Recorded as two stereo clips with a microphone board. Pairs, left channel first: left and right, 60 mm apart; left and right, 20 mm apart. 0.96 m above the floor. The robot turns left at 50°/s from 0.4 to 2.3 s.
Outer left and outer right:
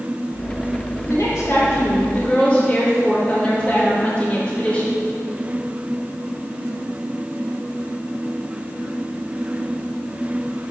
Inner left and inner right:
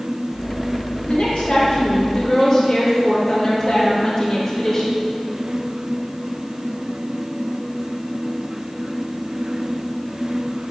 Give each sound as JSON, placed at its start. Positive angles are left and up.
{"t": 1.1, "sound": "a woman speaking", "azimuth_deg": 85, "distance_m": 1.7}